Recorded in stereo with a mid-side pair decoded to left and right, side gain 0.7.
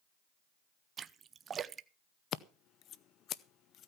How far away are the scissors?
About 0.6 m.